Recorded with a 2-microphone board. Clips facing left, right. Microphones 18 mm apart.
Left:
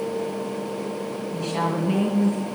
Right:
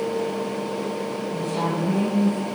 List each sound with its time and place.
1.3 s a woman speaking: 55° left (ahead or behind), 3 m